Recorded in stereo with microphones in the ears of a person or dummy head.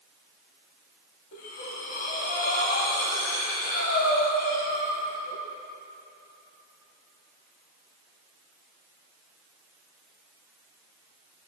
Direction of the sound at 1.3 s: 50° left (ahead or behind).